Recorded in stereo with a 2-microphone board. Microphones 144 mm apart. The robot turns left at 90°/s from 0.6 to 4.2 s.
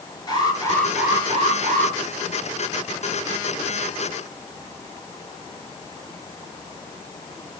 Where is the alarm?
30° left, 8.5 m; by 1.9 s 90° right, 8.5 m.